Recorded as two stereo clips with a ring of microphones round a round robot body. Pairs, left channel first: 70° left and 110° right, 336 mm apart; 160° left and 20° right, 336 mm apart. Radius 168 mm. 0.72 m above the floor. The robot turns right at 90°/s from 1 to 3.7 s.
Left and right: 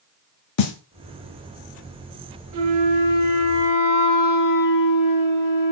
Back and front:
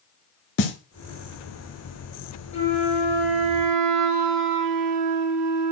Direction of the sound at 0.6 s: 105° left.